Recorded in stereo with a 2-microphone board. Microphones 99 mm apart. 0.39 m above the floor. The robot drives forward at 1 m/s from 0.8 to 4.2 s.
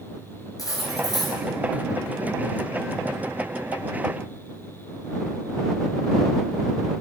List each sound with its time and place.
0.6 s cutlery clinking: 35° left (ahead or behind), 4.5 m; by 1.4 s 40° left (ahead or behind), 4 m